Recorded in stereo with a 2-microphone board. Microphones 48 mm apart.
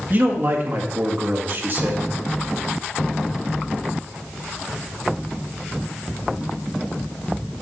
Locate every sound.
0.1 s a man speaking: 50° right (ahead or behind), 1.8 m